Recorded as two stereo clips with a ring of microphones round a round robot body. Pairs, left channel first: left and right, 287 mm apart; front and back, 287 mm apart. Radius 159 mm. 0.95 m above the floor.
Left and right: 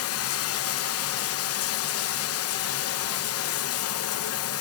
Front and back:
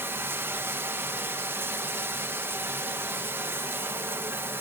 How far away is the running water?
About 0.8 m.